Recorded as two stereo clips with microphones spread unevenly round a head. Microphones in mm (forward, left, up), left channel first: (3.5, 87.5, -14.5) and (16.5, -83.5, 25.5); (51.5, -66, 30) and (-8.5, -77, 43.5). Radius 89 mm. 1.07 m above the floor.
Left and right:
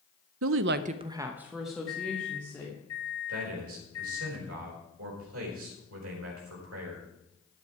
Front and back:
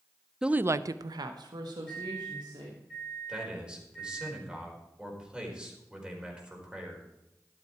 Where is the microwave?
105° left, 4.5 m.